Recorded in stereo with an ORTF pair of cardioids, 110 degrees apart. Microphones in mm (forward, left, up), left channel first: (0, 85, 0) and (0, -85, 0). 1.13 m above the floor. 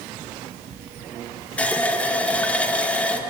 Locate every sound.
1.6 s a running tap: 10° left, 0.6 m